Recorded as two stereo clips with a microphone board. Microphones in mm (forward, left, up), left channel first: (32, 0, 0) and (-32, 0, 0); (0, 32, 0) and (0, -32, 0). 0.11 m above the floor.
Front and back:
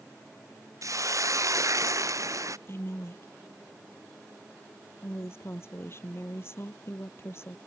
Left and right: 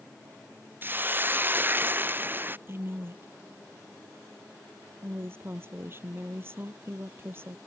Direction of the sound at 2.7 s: 40° right.